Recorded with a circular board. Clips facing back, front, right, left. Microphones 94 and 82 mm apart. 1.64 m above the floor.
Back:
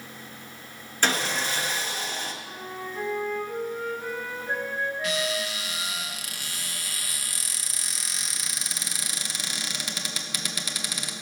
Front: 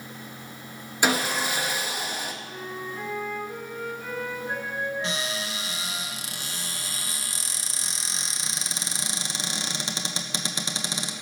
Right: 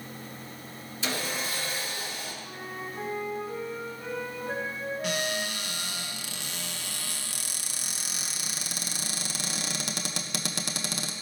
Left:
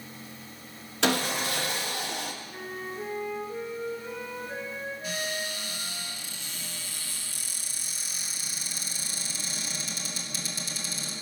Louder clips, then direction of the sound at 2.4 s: Front 1 dB, left 1 dB; 120° right.